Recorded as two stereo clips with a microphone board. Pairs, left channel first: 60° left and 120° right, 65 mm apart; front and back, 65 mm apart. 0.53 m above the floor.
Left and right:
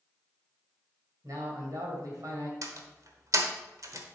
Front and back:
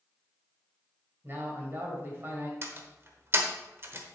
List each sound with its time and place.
1.2 s a man speaking: 130° right, 2.5 m
2.6 s a door slam: 135° right, 1.1 m